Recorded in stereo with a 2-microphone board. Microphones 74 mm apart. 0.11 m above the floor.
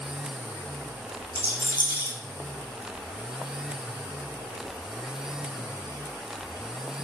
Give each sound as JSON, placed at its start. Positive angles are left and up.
{"t": 1.4, "sound": "a rattle", "side_deg": -25, "distance_m": 1.6}